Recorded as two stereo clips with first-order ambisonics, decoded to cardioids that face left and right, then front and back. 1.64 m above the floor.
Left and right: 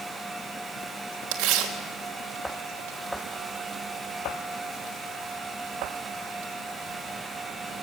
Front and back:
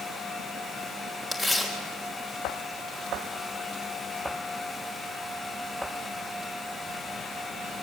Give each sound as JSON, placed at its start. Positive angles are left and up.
{"t": 1.3, "sound": "tearing paper", "azimuth_deg": -95, "distance_m": 3.0}